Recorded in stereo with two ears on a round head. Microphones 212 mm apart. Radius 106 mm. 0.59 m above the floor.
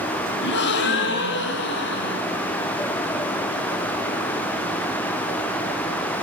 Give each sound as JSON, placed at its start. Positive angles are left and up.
{"t": 0.4, "sound": "a gasp", "side_deg": 50, "distance_m": 2.0}